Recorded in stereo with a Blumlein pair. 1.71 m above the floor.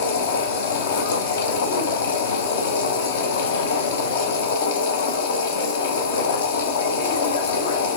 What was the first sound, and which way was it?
A machine running, 60° left.